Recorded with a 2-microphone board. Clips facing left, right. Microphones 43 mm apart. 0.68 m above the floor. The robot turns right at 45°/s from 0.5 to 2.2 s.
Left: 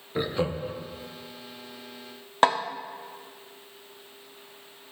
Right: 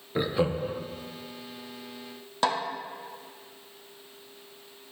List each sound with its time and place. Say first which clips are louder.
0.1 s laughter: right 1 dB; 5° right (ahead or behind), 0.7 m; by 0.8 s 15° right (ahead or behind), 0.7 m
2.4 s a snare drum: left 5 dB; 45° left (ahead or behind), 0.7 m